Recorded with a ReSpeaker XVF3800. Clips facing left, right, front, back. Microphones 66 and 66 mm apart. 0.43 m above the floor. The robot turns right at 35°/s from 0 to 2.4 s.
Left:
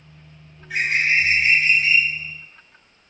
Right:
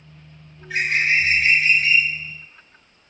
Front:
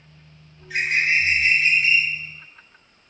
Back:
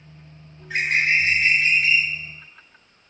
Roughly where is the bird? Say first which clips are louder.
Even, back 1 dB; behind.